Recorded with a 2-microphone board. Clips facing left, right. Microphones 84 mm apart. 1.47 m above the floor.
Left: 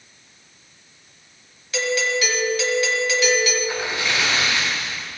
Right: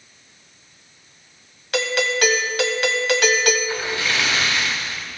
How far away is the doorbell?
About 0.8 m.